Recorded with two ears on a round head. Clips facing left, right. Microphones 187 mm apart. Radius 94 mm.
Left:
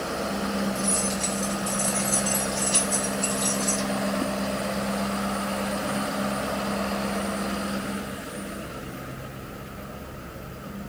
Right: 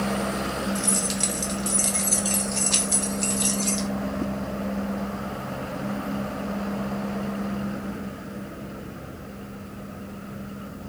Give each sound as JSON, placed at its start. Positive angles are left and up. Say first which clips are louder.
{"t": 0.8, "sound": "keys jangling", "louder": "even", "side_deg": -40, "distance_m": 1.3}